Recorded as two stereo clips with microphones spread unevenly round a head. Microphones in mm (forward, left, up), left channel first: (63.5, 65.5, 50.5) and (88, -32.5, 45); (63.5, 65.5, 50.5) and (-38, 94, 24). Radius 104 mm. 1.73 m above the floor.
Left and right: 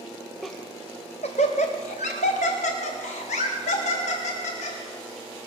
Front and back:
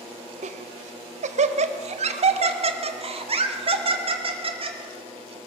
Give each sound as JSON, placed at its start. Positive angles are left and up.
{"t": 0.4, "sound": "laughter", "azimuth_deg": -165, "distance_m": 0.6}